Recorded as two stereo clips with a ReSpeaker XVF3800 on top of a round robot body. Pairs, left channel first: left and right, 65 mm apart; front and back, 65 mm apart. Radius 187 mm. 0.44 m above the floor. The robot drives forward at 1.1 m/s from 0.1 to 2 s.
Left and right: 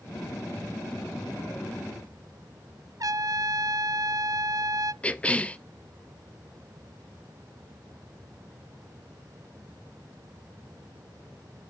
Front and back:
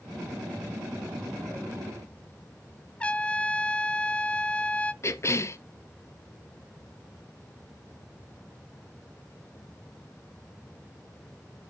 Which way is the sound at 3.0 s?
70° right.